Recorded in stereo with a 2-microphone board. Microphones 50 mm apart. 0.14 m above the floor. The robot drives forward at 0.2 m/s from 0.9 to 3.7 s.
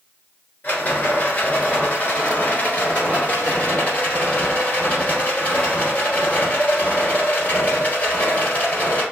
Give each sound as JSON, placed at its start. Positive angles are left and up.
{"t": 0.6, "sound": "a rattle", "side_deg": 35, "distance_m": 1.4}